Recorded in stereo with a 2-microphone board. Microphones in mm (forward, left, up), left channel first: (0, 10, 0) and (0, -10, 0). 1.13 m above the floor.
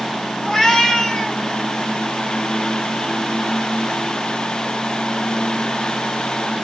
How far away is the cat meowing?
About 3 m.